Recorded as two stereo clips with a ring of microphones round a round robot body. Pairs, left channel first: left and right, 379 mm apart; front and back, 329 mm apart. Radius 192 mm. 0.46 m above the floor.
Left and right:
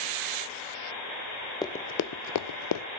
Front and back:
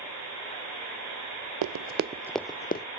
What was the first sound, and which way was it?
Running footsteps, 170° left.